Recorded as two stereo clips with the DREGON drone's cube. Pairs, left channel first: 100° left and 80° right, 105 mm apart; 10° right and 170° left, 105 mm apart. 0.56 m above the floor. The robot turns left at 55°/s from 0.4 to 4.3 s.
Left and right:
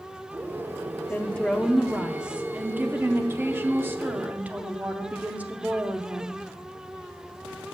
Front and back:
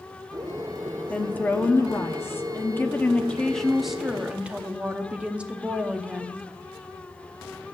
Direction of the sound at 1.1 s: 50° left.